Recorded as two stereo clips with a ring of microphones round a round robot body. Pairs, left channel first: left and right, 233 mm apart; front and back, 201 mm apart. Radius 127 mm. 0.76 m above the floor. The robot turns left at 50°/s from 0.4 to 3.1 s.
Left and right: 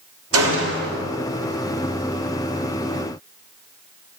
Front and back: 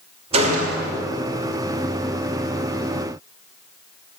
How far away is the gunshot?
About 2.5 m.